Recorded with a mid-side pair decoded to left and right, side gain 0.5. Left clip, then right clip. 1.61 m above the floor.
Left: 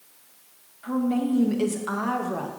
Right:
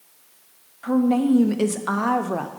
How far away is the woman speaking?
About 0.7 m.